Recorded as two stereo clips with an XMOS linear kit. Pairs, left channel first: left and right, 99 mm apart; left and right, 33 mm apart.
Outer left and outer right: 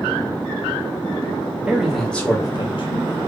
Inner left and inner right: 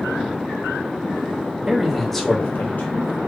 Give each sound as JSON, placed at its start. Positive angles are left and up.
{"t": 1.7, "sound": "a man speaking", "side_deg": -10, "distance_m": 1.3}